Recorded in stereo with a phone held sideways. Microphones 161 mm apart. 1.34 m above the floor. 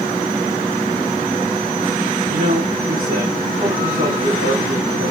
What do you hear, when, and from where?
2.3 s a man speaking: 65° right (ahead or behind), 3 m